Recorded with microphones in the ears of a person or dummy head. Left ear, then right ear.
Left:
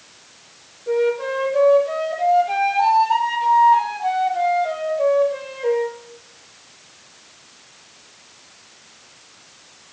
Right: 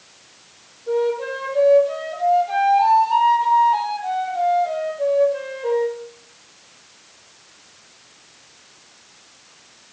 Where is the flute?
65° left (ahead or behind), 6.5 m.